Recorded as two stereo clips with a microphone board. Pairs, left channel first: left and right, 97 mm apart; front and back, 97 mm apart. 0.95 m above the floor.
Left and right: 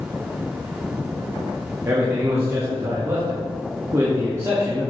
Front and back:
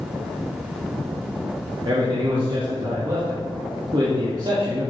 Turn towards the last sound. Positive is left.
turn(degrees=-150)